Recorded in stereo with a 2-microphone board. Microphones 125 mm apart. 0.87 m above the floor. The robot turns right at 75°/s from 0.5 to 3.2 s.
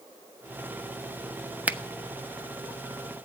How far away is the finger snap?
About 0.8 m.